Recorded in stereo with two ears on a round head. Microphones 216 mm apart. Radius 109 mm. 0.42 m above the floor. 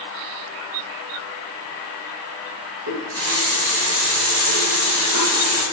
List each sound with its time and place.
2.9 s a running tap: 75° right (ahead or behind), 4 m